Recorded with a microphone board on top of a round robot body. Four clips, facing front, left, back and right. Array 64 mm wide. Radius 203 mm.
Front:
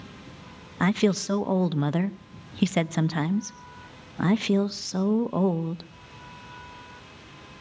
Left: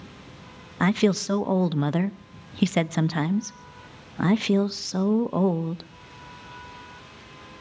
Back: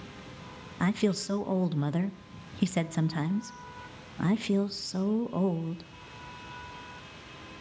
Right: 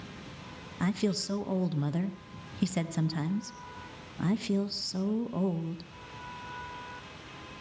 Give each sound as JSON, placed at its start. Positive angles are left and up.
{"t": 0.8, "sound": "a woman speaking", "azimuth_deg": 55, "distance_m": 1.1}